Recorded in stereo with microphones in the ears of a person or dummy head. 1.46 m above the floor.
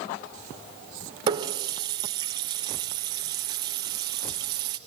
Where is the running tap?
25° right (ahead or behind), 0.7 m.